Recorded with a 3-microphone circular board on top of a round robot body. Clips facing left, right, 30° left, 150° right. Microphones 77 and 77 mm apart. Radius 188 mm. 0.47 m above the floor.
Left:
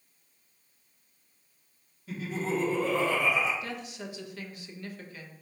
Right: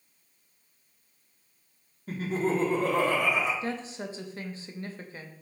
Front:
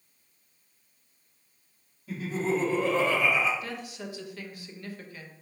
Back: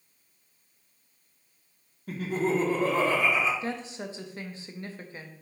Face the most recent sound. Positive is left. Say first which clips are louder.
# right 5 dB, back 4 dB
turn(degrees=-115)